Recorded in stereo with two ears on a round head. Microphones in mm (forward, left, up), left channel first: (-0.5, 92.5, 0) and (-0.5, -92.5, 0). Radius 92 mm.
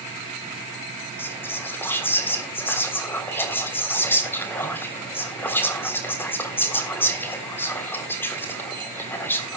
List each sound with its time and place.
1.2 s whispering: 10° left (ahead or behind), 3.5 m